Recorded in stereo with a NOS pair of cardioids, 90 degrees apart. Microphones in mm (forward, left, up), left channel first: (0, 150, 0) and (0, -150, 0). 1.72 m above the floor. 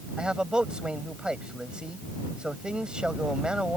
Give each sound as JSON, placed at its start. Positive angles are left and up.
{"t": 0.2, "sound": "a man speaking", "azimuth_deg": -5}